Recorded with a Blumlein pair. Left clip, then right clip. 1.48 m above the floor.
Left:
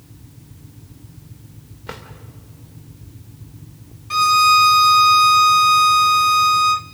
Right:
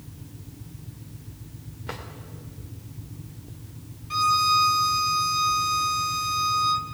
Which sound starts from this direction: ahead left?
A violin, at 4.1 s.